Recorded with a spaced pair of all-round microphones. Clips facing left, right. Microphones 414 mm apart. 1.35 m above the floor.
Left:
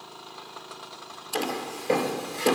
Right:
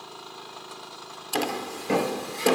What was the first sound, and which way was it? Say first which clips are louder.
Footsteps: right 1 dB; 45° right (ahead or behind).